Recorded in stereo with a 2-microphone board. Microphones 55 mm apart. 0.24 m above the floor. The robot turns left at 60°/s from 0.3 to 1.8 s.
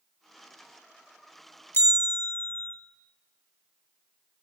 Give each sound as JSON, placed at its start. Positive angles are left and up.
{"t": 1.7, "sound": "a bell", "side_deg": 50, "distance_m": 0.6}